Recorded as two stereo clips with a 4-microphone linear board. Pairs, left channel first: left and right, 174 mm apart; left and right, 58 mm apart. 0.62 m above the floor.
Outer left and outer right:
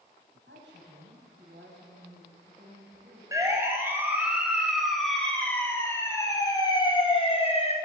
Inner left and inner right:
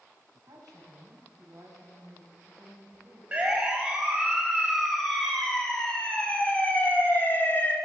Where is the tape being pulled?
No tape being pulled in this recording.